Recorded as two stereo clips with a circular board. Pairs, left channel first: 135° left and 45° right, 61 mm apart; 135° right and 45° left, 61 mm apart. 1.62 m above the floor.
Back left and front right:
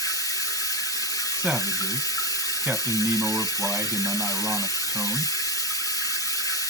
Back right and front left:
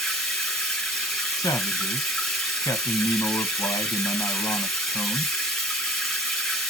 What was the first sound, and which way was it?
Running water, 135° left.